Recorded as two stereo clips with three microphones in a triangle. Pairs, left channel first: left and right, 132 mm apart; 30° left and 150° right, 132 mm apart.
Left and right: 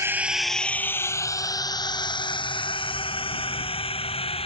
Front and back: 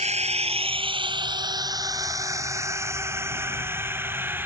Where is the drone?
155° right; by 4.5 s 135° left.